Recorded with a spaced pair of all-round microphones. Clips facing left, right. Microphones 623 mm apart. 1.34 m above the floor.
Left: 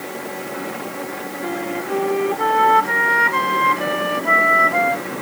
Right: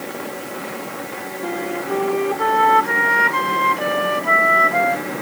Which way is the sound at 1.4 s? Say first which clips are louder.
Right 1 dB; centre (ahead or behind).